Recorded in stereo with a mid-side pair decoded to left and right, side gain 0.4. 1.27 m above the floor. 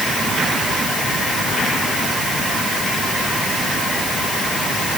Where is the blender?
I don't hear a blender.